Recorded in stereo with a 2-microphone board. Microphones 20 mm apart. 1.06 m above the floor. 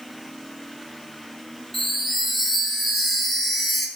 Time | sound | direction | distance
1.7 | a chime | 10° left (ahead or behind) | 3 m